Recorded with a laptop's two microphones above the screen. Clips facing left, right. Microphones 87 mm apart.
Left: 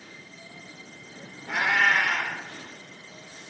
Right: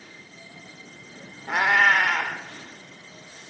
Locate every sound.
1.5 s a cat meowing: 60° right (ahead or behind), 1.4 m